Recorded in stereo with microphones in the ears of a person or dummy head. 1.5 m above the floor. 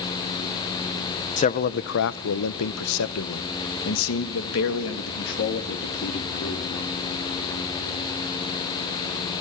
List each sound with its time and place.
1.4 s a man speaking: 35° left (ahead or behind), 0.9 m; by 6.7 s 60° left (ahead or behind), 3.5 m